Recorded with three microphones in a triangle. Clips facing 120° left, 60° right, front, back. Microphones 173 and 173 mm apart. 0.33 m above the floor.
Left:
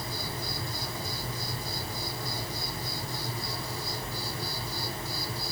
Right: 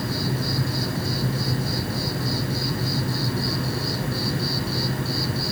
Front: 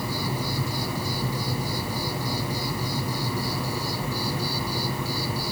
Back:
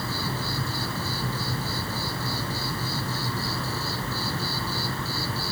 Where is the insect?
75° right, 1.1 m.